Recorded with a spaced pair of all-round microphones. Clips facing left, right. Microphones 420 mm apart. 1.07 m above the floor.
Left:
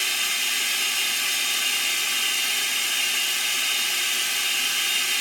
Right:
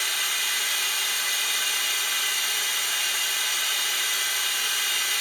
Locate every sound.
0.0 s running water: 45° left (ahead or behind), 1.1 m